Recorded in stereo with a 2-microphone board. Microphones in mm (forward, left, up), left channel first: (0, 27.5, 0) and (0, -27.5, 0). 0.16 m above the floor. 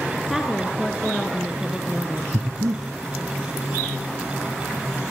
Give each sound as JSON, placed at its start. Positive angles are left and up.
{"t": 0.3, "sound": "a woman speaking", "side_deg": 5, "distance_m": 2.5}
{"t": 2.3, "sound": "breathing", "side_deg": -80, "distance_m": 3.0}